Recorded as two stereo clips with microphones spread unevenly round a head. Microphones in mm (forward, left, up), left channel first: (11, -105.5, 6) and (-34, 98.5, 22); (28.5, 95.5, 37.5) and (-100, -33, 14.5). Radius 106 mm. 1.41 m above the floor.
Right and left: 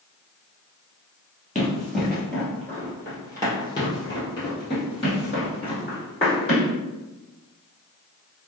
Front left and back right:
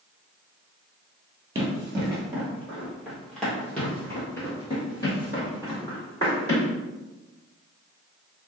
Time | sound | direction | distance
1.6 | running footsteps | 175° left | 1.4 m